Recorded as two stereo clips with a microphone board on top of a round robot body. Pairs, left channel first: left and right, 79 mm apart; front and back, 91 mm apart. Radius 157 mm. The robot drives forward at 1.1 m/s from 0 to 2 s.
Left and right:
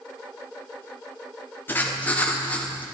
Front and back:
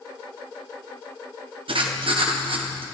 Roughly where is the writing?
Behind left.